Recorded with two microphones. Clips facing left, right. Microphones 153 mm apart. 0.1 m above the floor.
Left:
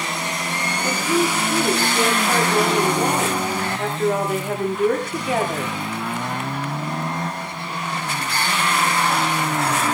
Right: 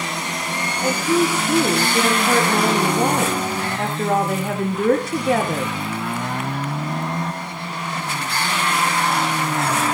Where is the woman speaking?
75° right (ahead or behind), 7.5 m.